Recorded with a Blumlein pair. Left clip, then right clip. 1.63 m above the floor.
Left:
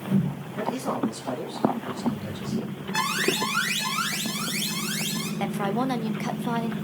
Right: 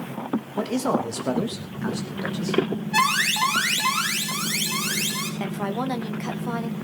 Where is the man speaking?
20° right, 3 m; by 2.6 s 45° right, 3.5 m.